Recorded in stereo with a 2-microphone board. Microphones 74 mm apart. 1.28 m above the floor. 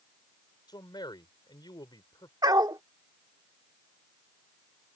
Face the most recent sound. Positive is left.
turn(degrees=-65)  # may be behind; listen again after turning